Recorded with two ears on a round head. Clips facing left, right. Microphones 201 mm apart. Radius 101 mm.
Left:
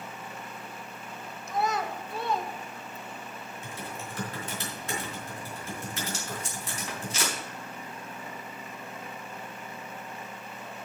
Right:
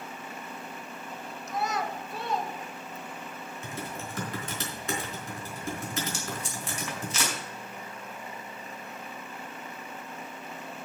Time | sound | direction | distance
1.5 | a child speaking | 70° left (ahead or behind) | 1.5 m
3.6 | typing on a keyboard | 65° right (ahead or behind) | 4 m
6.1 | tape being pulled | 75° right (ahead or behind) | 4.5 m